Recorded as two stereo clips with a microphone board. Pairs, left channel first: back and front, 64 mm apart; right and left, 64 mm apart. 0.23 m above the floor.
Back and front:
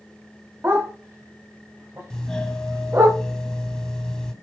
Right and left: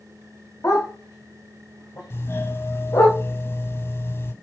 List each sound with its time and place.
0.6 s a dog barking: 50° right, 7 m
2.1 s a doorbell: 100° right, 2.5 m